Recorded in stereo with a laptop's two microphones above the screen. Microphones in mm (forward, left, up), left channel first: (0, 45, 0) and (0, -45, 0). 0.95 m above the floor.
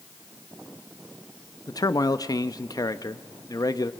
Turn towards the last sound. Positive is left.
turn(degrees=45)  # may be behind; listen again after turning